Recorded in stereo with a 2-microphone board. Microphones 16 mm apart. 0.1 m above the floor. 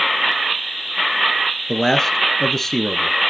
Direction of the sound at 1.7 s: 25° left (ahead or behind).